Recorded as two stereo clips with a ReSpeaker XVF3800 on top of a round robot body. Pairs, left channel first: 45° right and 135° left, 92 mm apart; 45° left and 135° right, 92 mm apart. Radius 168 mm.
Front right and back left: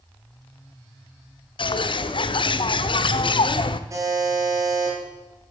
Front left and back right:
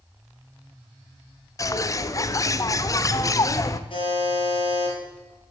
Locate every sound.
1.6 s a bird: 10° right, 0.6 m
3.9 s a buzzer: 80° left, 5 m